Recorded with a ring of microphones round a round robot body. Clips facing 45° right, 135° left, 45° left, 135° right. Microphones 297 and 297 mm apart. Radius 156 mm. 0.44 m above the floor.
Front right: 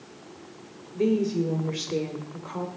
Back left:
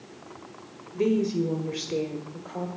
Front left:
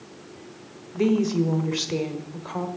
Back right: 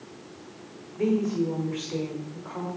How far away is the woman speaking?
About 1.6 m.